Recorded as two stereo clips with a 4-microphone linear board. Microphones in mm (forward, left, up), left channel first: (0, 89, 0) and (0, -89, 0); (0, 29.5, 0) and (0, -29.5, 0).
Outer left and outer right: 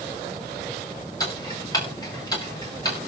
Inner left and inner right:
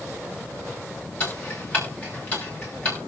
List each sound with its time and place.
1.2 s ticking: 20° left (ahead or behind), 5.5 m